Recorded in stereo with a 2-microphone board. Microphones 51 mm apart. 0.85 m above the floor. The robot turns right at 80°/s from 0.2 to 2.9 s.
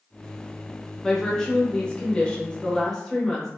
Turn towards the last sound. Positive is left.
turn(degrees=10)  # may be behind; listen again after turning